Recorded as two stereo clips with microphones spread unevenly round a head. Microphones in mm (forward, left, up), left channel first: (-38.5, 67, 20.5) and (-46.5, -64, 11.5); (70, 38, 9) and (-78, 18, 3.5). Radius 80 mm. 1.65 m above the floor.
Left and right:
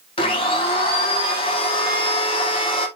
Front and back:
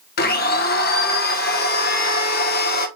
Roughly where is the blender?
Ahead left.